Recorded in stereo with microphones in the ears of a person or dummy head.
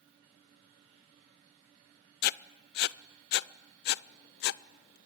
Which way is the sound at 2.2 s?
50° left (ahead or behind).